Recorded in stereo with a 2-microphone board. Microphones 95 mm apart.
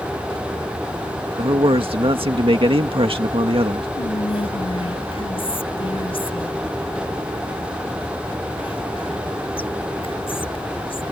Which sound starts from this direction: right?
A man speaking, at 1.4 s.